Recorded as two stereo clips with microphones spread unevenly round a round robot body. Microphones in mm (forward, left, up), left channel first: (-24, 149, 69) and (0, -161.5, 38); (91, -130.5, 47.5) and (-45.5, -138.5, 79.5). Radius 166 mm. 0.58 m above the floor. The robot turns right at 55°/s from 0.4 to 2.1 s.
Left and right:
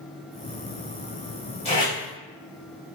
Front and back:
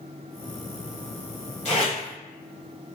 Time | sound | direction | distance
1.6 | tape being pulled | 20° left | 1.1 m